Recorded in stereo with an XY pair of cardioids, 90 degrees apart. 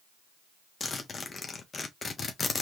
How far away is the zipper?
About 1.3 m.